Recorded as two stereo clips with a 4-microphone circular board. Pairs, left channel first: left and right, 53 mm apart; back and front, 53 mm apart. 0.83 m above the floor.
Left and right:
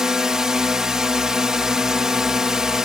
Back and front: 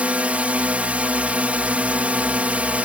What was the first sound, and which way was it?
A drone, 25° right.